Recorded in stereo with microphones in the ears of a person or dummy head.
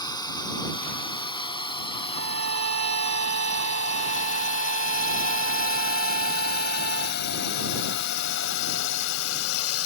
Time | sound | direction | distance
0.0 | a drone | 25° left (ahead or behind) | ?
2.1 | a violin | 55° right (ahead or behind) | ?